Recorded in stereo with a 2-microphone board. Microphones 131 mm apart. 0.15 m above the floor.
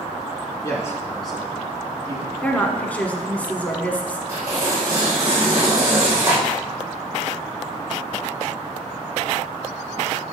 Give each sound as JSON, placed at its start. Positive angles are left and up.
{"t": 0.6, "sound": "a man speaking", "side_deg": 30, "distance_m": 2.0}
{"t": 2.4, "sound": "a woman speaking", "side_deg": 10, "distance_m": 1.1}
{"t": 4.3, "sound": "tearing paper", "side_deg": -20, "distance_m": 3.5}